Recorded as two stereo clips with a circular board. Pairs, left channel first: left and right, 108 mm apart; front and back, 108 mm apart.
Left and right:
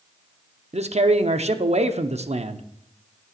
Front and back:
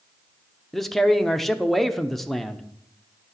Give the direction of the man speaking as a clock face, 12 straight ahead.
3 o'clock.